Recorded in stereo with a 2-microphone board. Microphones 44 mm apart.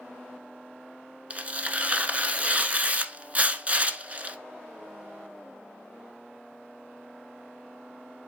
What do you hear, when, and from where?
1.3 s tearing paper: 35° right (ahead or behind), 0.9 m